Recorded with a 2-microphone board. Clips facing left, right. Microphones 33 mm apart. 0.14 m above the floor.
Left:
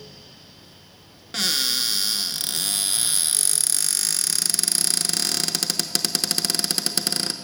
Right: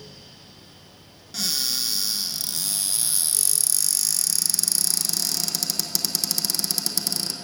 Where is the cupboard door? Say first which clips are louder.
Left 4 dB; 50° left (ahead or behind), 0.5 m.